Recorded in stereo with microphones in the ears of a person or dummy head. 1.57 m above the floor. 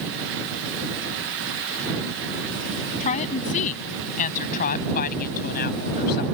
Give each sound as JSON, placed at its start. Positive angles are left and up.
{"t": 3.0, "sound": "a woman speaking", "side_deg": 35}